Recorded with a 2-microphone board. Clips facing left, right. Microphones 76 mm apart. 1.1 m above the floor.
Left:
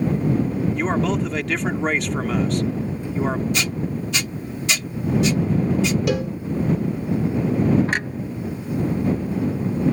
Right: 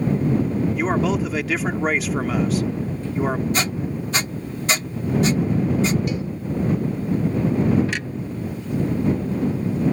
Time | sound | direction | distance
0.8 | a man speaking | 5° right (ahead or behind) | ?
3.5 | a squeak | 35° right (ahead or behind) | ?
6.1 | a cowbell | 85° left | ?
7.9 | a clunk | 40° left (ahead or behind) | ?